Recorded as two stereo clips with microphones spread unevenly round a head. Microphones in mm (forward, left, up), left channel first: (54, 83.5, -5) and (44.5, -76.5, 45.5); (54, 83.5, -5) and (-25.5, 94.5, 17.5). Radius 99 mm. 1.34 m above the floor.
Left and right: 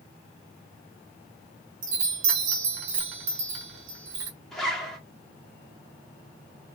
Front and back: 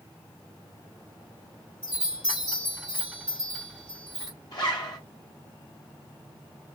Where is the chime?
90° right, 1.0 m.